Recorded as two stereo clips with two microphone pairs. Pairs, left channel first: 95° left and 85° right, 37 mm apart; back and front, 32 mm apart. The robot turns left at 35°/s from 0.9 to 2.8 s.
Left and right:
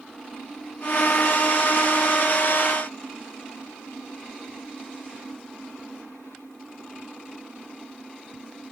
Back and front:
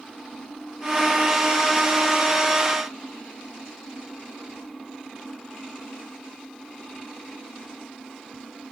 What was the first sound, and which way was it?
Only background noise.